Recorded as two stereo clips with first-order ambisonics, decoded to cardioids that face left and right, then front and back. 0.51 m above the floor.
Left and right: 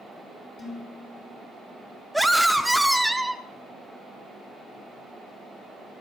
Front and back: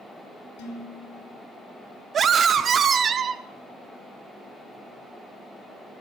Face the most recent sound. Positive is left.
turn(degrees=-170)